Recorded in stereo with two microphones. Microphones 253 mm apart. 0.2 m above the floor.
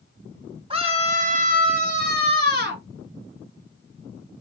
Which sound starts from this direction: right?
A scream, at 0.7 s.